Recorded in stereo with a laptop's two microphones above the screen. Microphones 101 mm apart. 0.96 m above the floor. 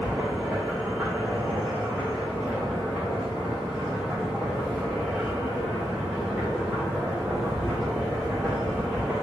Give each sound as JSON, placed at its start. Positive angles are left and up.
{"t": 0.0, "sound": "a machine running", "side_deg": -5, "distance_m": 1.1}